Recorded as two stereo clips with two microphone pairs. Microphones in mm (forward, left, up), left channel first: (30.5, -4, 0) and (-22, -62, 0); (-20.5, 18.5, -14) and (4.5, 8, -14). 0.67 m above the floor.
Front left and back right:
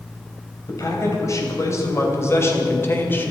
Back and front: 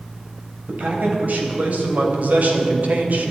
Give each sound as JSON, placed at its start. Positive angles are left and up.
{"t": 0.7, "sound": "a man speaking", "azimuth_deg": 0, "distance_m": 3.5}